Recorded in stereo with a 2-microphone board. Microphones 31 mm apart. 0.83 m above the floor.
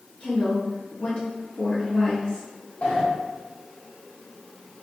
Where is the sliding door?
45° left (ahead or behind), 1.2 m.